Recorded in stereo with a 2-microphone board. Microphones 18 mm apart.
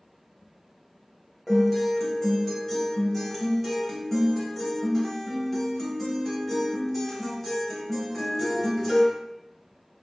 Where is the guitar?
10° left (ahead or behind), 1.0 m.